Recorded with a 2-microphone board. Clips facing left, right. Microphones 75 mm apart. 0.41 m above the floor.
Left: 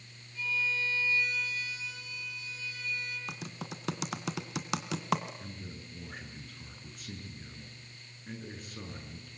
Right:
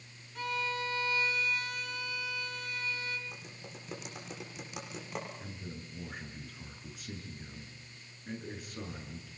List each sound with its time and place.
0.3 s a violin: 55° right (ahead or behind), 4 m
3.3 s typing on a keyboard: 80° left, 2.5 m
5.4 s a man speaking: centre (ahead or behind), 6 m